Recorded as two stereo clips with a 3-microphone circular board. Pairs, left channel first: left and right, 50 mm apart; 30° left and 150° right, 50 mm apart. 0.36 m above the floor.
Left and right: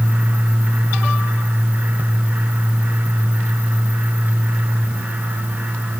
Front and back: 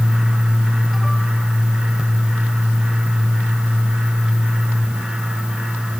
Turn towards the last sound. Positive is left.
No sound to turn to.